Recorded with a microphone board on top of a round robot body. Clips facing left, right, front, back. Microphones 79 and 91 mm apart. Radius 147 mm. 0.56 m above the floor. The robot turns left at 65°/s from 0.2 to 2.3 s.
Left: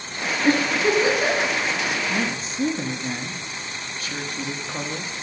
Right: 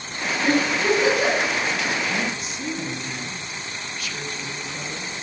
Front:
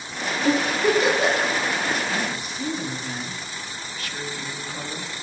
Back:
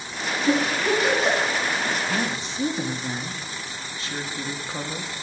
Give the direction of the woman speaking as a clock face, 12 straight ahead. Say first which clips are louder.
Left 1 dB, back 1 dB; 7 o'clock.